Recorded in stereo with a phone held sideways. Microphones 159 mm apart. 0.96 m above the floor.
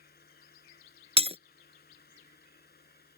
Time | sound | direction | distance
0.0 | a fan | 90° left | ?
1.2 | breaking glass | 40° right (ahead or behind) | ?